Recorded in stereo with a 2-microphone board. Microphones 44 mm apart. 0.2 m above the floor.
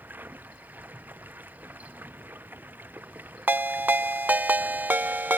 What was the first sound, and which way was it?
Running water, 45° right (ahead or behind).